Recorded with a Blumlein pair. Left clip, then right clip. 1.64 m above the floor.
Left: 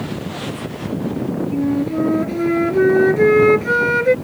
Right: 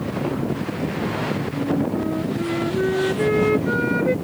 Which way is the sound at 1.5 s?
65° left.